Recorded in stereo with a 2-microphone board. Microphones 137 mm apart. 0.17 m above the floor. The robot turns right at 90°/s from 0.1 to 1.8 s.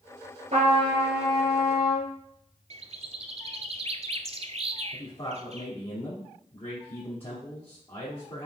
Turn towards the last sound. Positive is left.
turn(degrees=45)  # may be behind; listen again after turning